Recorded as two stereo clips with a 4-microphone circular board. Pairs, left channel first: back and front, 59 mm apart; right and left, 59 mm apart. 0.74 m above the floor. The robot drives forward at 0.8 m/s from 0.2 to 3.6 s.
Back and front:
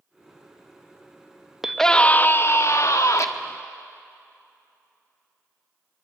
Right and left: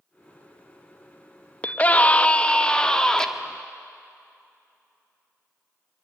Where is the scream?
80° right, 0.6 m; by 3.3 s 170° right, 1.4 m.